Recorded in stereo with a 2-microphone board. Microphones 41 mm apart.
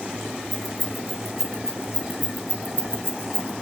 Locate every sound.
0.5 s keys jangling: 5° left (ahead or behind), 4 m; by 3.5 s 70° right (ahead or behind), 2.5 m